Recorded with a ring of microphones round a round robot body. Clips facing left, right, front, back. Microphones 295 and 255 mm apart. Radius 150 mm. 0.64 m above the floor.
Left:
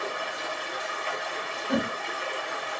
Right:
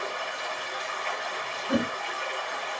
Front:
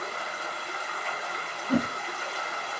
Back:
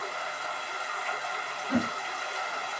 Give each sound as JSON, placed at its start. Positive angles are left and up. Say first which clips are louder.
{"t": 0.0, "sound": "running water", "louder": "left 1 dB, front 1 dB", "azimuth_deg": 10, "distance_m": 1.9}
{"t": 1.7, "sound": "a whoosh", "louder": "right 1 dB, front 2 dB", "azimuth_deg": -25, "distance_m": 1.2}